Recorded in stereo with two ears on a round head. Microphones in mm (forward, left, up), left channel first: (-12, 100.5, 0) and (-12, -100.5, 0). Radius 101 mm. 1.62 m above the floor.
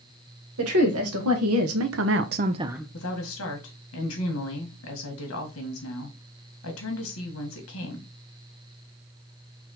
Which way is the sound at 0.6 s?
80° right.